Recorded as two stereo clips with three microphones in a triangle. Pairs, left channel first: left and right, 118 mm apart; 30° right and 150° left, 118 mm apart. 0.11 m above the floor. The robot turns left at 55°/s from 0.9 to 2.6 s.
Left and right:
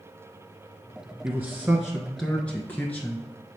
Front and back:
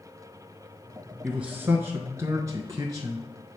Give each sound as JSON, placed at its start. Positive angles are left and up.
{"t": 1.2, "sound": "a man speaking", "azimuth_deg": -135, "distance_m": 1.3}